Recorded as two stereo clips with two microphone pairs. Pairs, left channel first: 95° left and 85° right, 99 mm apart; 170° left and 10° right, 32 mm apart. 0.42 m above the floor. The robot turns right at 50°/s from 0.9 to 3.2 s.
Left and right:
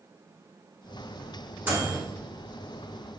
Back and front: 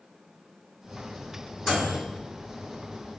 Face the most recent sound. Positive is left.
turn(degrees=-30)